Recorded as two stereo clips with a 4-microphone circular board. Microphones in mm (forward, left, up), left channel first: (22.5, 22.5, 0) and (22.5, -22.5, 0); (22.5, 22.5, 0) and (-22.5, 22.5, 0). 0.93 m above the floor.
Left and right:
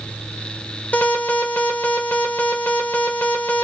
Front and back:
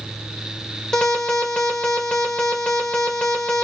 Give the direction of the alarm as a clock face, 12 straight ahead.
10 o'clock.